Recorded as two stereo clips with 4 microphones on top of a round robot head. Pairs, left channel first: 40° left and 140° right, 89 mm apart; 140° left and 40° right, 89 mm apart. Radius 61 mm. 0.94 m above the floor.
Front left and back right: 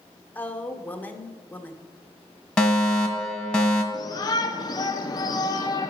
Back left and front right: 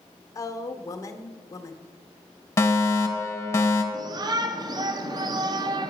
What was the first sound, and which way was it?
A woman speaking, 105° left.